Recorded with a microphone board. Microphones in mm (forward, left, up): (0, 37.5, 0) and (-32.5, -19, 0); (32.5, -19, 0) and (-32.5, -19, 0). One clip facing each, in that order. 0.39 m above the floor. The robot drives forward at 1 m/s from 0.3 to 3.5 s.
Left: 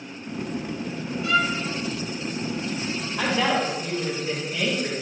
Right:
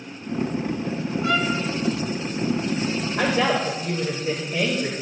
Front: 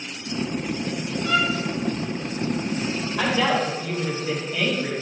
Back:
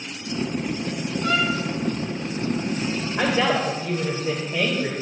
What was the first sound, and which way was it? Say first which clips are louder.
A violin: left 1 dB, even; 175° right.